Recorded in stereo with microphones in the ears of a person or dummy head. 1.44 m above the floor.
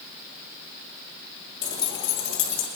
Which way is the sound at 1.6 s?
15° left (ahead or behind).